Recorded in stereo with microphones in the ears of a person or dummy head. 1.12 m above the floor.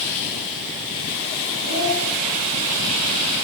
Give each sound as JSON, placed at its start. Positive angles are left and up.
{"t": 1.6, "sound": "a child speaking", "side_deg": -60, "distance_m": 5.5}